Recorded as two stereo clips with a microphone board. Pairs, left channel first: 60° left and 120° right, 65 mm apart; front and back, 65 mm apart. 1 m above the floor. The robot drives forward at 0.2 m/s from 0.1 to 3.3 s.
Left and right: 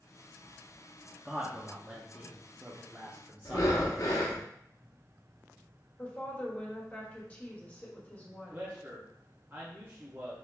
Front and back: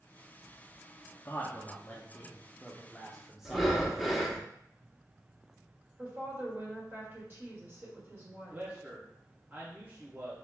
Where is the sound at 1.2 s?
45° right, 0.7 m; by 4.5 s 100° right, 0.6 m.